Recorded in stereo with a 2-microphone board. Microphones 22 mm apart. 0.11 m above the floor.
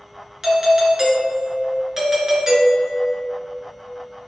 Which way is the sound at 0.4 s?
25° right (ahead or behind).